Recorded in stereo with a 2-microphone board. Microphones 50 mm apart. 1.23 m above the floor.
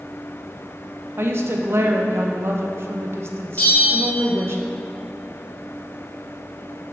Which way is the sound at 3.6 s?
35° left (ahead or behind).